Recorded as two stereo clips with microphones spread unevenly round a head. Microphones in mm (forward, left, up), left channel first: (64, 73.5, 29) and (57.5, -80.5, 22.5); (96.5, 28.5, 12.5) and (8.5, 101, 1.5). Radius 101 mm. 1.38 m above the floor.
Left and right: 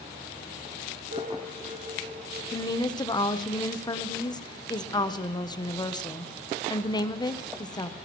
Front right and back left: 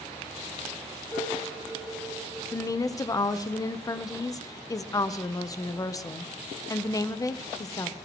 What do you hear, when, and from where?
1.1 s dishes clattering: 90° right, 6.5 m
2.5 s a woman speaking: 25° left, 1.0 m